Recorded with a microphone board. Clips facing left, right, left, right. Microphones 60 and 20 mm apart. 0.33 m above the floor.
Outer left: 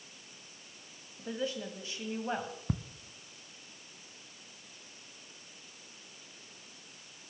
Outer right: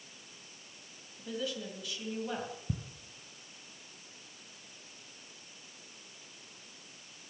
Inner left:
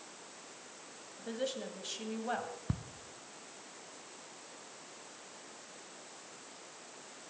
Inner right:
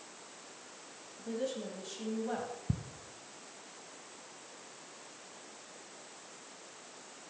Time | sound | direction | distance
1.2 | a woman speaking | 30° left (ahead or behind) | 2.5 m
2.7 | ticking | 75° left (ahead or behind) | 1.0 m